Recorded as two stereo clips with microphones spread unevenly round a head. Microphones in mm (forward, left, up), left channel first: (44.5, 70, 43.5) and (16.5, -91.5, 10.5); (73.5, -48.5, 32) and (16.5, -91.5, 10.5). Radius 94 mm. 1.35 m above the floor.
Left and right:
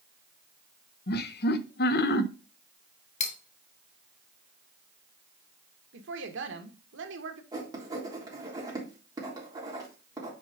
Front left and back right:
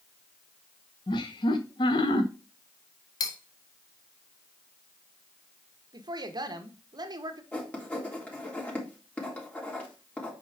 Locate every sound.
1.1 s laughter: 60° left, 0.7 m
3.2 s cutlery clinking: 45° left, 0.9 m
5.9 s a woman speaking: 115° right, 1.5 m
7.5 s writing: 30° right, 3.5 m